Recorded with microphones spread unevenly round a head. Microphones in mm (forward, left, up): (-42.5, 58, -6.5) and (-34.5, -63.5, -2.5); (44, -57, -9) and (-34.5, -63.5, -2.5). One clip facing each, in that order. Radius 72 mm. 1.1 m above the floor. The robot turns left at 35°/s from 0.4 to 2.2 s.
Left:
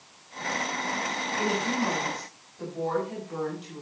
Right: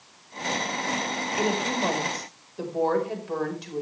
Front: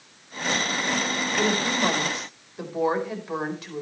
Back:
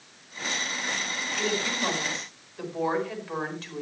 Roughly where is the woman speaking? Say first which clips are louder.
Right 2 dB, front 5 dB; ahead right.